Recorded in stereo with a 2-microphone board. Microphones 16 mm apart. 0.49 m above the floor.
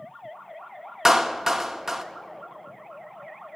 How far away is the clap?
About 0.7 m.